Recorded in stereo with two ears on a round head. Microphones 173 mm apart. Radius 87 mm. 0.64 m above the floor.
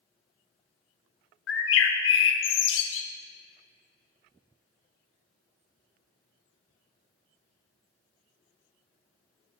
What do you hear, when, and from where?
1.5 s a bird: 70° left (ahead or behind), 0.8 m